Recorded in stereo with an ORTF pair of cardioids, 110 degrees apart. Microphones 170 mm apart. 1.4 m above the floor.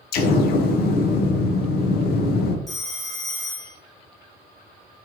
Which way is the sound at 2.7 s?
Straight ahead.